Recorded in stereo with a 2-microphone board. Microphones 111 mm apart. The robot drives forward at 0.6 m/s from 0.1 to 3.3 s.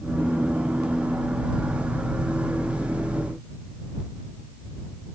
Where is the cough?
No cough in this recording.